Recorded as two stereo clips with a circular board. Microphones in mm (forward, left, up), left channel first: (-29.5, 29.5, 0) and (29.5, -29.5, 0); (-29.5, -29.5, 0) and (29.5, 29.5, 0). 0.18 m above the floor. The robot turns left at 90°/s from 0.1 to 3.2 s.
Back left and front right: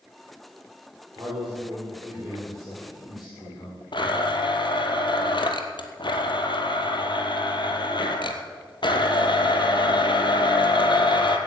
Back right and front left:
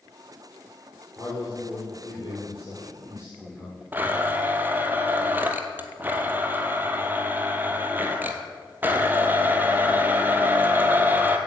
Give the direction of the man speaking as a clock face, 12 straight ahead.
1 o'clock.